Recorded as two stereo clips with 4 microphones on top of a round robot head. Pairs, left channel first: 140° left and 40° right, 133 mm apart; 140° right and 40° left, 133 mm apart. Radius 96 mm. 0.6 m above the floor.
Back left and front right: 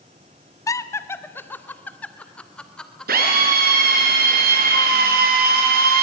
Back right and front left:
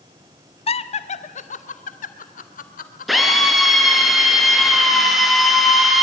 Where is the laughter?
160° right, 1.6 m; by 3.3 s 135° right, 3.5 m.